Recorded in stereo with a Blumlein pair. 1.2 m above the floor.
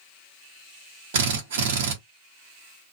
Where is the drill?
55° right, 0.9 m.